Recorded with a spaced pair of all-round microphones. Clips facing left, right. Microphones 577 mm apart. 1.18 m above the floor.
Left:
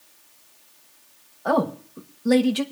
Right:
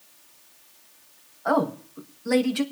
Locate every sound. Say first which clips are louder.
1.4 s a woman speaking: left 1 dB; 65° left (ahead or behind), 1.2 m